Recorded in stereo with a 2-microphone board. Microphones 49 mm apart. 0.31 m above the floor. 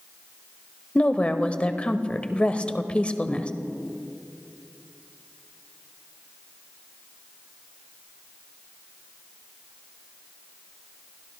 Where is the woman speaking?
25° left (ahead or behind), 0.9 m.